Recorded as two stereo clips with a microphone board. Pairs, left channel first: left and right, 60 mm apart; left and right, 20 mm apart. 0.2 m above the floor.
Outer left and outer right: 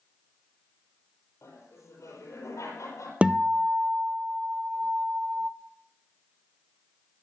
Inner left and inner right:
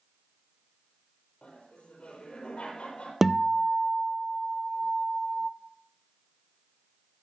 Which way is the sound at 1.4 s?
70° left (ahead or behind).